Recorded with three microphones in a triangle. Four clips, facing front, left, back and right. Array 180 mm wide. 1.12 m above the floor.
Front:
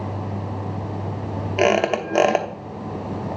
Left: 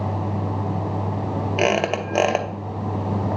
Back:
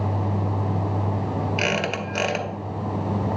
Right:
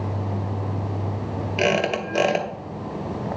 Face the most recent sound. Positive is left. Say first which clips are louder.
# left 1 dB, front 7 dB
turn(degrees=30)